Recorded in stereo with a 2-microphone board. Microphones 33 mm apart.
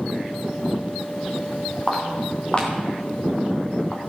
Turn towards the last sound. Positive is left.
turn(degrees=30)  # may be behind; listen again after turning